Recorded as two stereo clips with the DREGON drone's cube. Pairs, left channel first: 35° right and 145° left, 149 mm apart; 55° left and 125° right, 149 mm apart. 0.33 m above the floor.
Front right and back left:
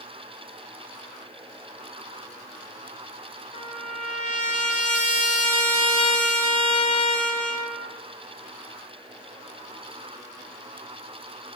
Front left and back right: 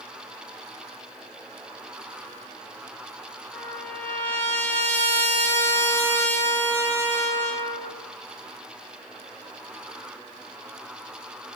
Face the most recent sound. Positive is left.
turn(degrees=-20)